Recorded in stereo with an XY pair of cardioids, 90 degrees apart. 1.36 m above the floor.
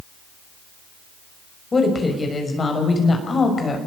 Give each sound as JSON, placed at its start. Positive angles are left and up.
{"t": 1.7, "sound": "a woman speaking", "azimuth_deg": 35, "distance_m": 6.5}